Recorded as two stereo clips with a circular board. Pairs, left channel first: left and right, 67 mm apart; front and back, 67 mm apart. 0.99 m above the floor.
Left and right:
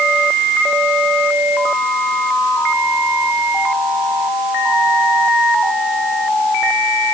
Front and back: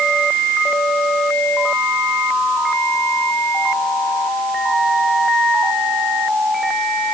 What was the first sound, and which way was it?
Only background noise.